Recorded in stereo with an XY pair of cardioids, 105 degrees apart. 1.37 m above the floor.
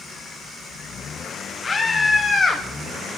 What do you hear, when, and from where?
1.6 s a scream: 25° left, 3 m; by 2.6 s 35° left, 3 m